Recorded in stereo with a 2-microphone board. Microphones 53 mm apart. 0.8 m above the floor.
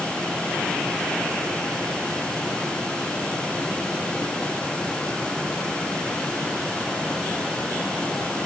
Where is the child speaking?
No child speaking in this recording.